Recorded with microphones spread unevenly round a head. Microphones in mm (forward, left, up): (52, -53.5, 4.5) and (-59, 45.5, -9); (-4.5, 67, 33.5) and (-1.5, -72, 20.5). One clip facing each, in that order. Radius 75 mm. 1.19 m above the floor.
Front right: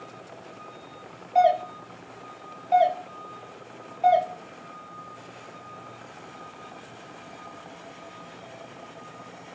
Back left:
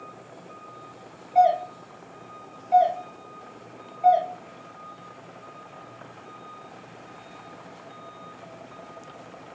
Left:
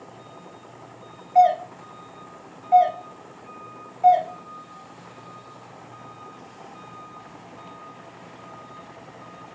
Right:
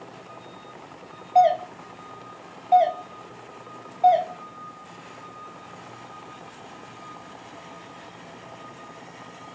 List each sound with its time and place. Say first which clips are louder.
1.4 s a doorbell: back left 1 dB, left 1 dB; 60° right, 1.0 m